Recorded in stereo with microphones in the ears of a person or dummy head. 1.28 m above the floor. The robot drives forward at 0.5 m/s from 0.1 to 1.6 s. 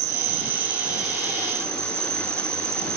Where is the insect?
55° right (ahead or behind), 0.9 m; by 3.0 s 30° right (ahead or behind), 1.4 m.